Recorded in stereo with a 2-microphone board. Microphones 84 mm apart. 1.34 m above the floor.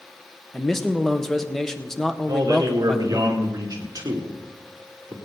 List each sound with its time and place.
0.5 s a man speaking: 5° left (ahead or behind), 1.2 m
2.3 s a man speaking: 50° right (ahead or behind), 2.5 m